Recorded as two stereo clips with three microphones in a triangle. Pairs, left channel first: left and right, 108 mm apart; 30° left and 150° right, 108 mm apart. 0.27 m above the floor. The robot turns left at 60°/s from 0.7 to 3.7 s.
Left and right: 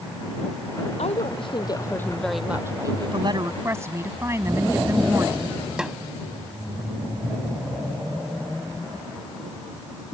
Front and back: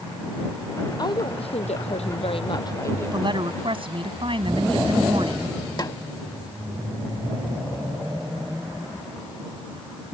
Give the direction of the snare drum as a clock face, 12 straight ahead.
12 o'clock.